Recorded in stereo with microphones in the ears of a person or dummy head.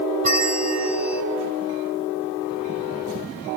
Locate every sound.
0.2 s a bell: 40° right (ahead or behind), 0.9 m